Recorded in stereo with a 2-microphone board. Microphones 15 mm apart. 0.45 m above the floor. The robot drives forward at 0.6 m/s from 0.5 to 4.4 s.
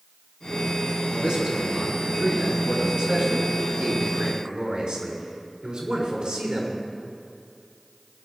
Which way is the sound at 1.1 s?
70° right (ahead or behind).